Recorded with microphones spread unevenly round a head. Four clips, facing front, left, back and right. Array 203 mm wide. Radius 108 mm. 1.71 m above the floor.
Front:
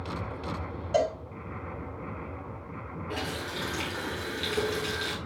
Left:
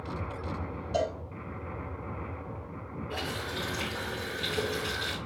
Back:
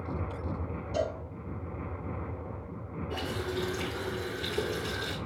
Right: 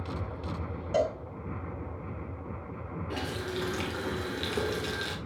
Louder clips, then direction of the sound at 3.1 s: Right 2 dB, back 1 dB; 65° right.